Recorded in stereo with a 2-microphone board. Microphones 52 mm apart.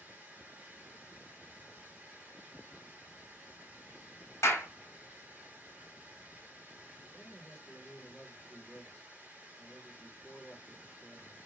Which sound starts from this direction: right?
Running water, at 0.0 s.